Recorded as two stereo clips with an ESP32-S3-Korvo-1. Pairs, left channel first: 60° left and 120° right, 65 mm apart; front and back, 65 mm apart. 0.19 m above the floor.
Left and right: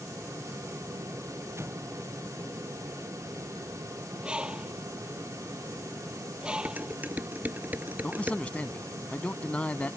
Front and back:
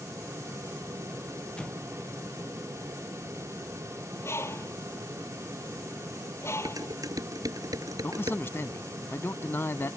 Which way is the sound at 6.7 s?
Straight behind.